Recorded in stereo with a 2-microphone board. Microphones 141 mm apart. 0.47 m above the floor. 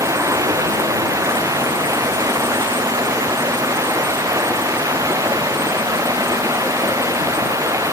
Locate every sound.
0.0 s running water: 20° right (ahead or behind)